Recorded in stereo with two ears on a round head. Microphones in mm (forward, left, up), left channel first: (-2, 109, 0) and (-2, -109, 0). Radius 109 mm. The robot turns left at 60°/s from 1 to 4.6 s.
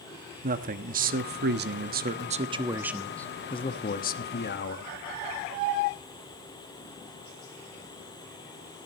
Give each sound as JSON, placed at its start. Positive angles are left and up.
{"t": 0.4, "sound": "a man speaking", "azimuth_deg": -55, "distance_m": 1.1}